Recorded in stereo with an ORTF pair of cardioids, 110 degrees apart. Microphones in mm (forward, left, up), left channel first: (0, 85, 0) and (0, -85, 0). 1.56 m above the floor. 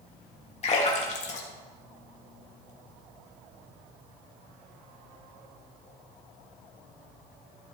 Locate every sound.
0.6 s a splash: 40° left, 3 m